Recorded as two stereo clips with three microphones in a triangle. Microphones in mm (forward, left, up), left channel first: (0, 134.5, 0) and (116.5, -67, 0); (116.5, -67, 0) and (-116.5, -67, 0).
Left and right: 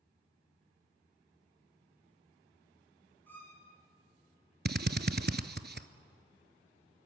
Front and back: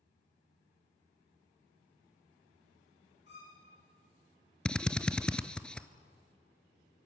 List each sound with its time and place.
3.3 s a violin: 40° left, 6 m
4.7 s a drill: 85° right, 0.8 m